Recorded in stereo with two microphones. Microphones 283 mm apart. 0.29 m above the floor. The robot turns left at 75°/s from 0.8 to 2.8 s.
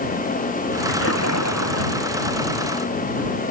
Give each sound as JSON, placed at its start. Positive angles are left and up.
{"t": 0.9, "sound": "a splash", "azimuth_deg": 135}